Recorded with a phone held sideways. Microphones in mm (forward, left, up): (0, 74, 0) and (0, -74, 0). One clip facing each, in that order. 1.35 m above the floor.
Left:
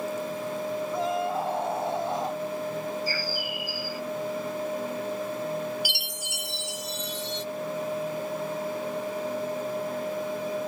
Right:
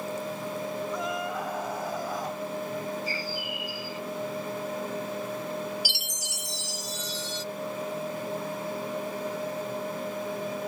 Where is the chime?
55° left (ahead or behind).